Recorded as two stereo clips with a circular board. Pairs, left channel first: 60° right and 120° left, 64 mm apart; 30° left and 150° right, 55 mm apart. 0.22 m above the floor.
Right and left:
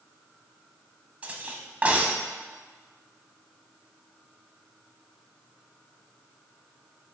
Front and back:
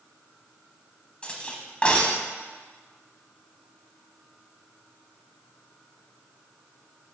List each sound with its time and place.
1.2 s cutlery clinking: 75° left, 0.7 m